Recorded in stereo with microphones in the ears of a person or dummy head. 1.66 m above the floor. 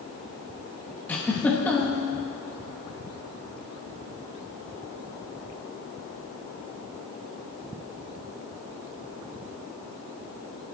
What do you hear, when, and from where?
1.1 s a giggle: 10° left (ahead or behind), 2 m